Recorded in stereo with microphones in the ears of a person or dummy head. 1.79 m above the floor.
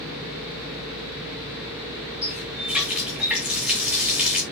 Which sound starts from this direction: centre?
A running tap, at 2.2 s.